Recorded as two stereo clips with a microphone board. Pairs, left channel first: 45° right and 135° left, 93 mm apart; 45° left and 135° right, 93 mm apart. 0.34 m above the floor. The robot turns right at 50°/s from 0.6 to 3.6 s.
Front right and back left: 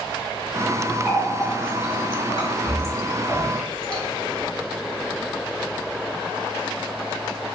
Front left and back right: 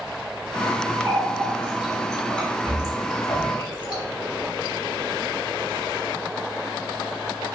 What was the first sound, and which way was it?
A running tap, 95° right.